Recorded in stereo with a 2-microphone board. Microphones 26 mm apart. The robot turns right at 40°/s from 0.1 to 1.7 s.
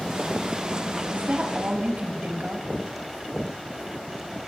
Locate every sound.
1.1 s a woman speaking: 80° right, 4 m; by 2.7 s 60° right (ahead or behind), 4 m